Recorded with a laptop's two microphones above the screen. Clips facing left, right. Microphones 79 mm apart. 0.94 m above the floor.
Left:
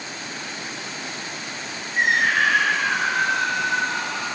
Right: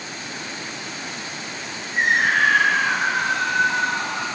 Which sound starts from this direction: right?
A scream, at 1.9 s.